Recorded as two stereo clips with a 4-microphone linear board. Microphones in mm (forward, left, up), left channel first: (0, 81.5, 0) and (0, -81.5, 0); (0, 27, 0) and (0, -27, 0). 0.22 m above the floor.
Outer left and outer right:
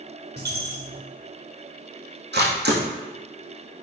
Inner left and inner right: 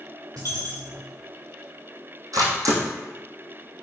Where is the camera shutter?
80° right, 2.5 m.